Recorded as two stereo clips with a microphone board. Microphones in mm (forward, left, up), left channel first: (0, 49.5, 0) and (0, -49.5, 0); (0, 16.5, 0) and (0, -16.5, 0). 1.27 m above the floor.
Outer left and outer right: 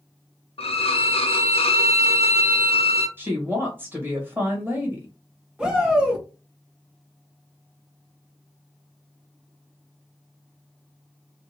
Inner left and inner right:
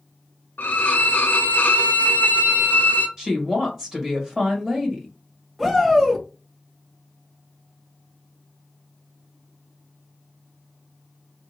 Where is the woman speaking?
20° right (ahead or behind), 1.5 m.